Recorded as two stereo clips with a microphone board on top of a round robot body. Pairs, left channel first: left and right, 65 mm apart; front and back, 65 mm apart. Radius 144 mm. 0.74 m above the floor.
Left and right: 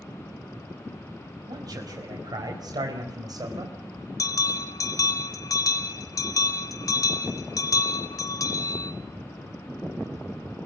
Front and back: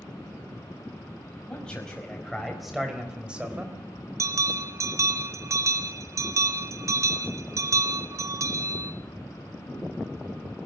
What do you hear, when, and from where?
1.5 s a man speaking: 75° right, 5 m; by 3.8 s 115° right, 3.5 m
4.2 s a bell: 130° left, 0.8 m